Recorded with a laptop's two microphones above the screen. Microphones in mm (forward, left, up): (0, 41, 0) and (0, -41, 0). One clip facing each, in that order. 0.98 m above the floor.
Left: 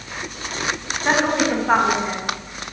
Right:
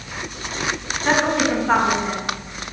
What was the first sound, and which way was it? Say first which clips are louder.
A woman speaking: even; 10° left (ahead or behind).